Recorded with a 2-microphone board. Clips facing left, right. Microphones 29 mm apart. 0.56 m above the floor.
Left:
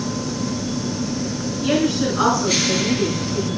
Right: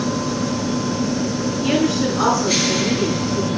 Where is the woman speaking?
10° left (ahead or behind), 5.5 m.